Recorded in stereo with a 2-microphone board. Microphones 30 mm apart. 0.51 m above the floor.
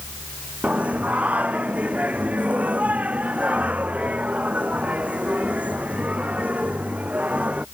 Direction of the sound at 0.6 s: 60° right (ahead or behind).